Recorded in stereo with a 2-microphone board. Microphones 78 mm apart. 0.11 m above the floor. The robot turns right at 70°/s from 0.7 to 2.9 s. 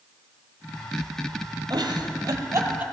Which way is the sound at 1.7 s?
65° right (ahead or behind).